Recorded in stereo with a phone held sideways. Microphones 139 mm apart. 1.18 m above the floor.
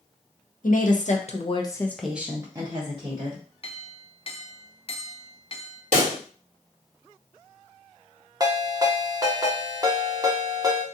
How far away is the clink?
About 0.5 m.